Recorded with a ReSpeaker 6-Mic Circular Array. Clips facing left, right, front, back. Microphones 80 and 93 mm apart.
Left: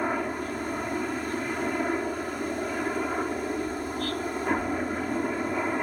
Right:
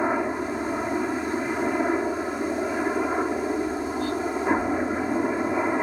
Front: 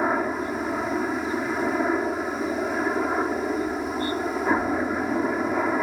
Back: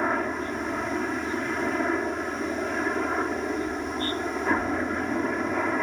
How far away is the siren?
No siren in this recording.